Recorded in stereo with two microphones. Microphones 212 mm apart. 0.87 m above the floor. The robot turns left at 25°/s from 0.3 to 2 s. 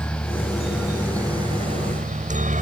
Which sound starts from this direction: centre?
A helicopter, at 0.0 s.